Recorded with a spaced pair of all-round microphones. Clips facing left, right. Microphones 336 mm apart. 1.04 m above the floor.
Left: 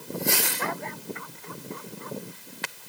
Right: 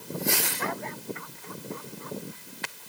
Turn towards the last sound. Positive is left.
No sound to turn to.